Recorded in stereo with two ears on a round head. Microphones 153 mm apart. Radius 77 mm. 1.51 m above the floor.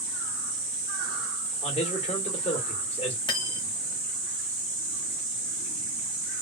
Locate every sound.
1.6 s a man speaking: 35° left (ahead or behind), 1.5 m
3.3 s cutlery clinking: 30° left (ahead or behind), 1.0 m